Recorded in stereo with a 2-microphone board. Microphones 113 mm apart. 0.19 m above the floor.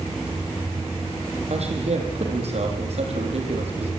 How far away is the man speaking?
About 6.5 m.